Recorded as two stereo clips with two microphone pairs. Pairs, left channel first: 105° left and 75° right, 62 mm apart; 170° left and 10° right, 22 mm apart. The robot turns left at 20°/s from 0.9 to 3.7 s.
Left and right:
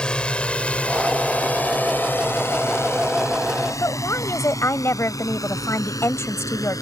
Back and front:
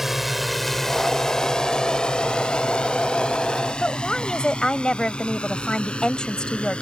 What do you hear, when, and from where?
0.0 s a drone: 50° left; by 6.8 s 125° left
3.8 s a woman speaking: 120° left